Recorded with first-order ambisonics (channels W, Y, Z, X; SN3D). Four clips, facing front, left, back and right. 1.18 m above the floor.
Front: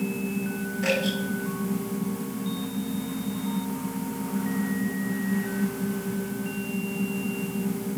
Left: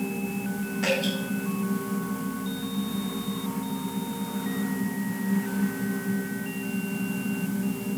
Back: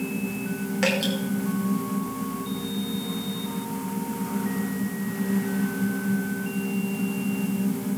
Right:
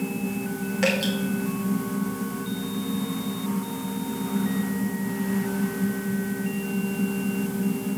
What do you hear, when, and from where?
0.8 s dripping: 140° right, 4.5 m